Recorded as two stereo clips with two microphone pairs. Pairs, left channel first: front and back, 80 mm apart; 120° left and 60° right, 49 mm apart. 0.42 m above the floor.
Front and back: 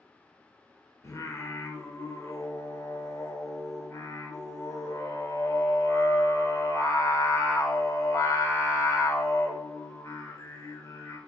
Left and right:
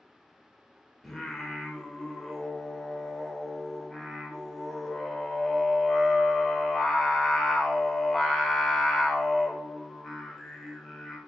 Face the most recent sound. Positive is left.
turn(degrees=35)